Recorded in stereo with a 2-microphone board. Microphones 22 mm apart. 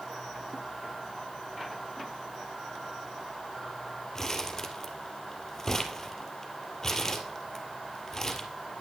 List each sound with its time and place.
4.2 s crumpling: 20° left (ahead or behind), 1.5 m